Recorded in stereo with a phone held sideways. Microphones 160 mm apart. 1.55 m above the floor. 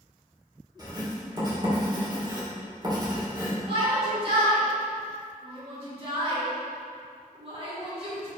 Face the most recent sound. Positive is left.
turn(degrees=-40)  # may be behind; listen again after turning